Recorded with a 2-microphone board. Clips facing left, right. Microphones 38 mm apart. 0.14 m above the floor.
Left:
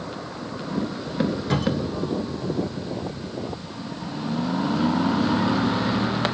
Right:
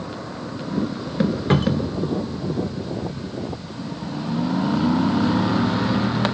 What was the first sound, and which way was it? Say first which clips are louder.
A cupboard door: right 4 dB; 35° right (ahead or behind).